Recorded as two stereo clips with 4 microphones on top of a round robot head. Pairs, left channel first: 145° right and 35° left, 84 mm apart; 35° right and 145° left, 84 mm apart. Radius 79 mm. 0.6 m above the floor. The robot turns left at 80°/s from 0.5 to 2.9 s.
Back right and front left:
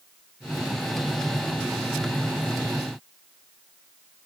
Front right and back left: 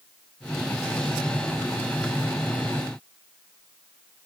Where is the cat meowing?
No cat meowing in this recording.